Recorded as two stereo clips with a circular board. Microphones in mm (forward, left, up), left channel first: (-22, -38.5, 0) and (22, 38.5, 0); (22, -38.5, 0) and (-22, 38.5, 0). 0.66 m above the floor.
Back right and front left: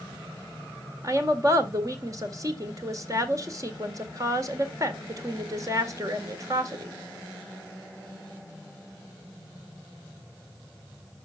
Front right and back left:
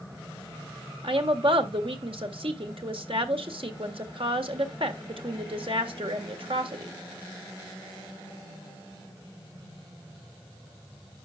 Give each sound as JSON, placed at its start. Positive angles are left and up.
{"t": 1.0, "sound": "a woman speaking", "azimuth_deg": 110, "distance_m": 1.8}